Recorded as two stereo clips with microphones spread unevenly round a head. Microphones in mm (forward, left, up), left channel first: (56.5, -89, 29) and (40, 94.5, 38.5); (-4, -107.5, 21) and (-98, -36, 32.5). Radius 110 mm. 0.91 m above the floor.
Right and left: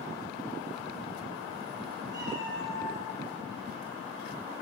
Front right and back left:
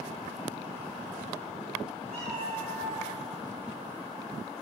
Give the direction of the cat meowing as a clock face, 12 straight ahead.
6 o'clock.